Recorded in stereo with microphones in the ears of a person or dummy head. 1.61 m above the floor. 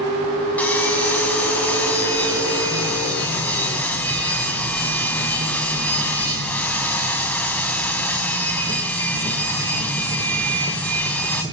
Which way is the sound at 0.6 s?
10° left (ahead or behind).